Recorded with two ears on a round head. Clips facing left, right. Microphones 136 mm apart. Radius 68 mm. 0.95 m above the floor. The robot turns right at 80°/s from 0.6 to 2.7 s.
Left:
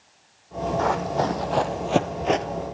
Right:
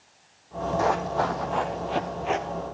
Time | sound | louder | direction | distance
0.8 | running footsteps | left 1 dB | 10° right (ahead or behind) | 2.5 m